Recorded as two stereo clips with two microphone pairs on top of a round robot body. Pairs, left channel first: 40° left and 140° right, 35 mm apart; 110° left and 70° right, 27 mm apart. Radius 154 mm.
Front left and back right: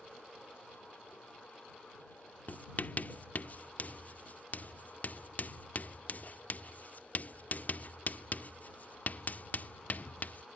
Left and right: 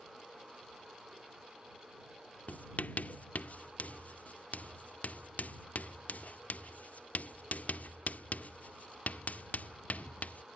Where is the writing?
80° left.